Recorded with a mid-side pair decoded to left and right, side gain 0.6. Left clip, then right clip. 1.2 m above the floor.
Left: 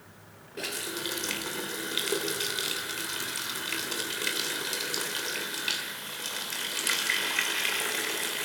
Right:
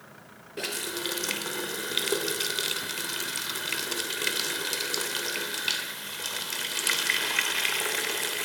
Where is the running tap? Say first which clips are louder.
Right 2 dB; 15° right, 3 m.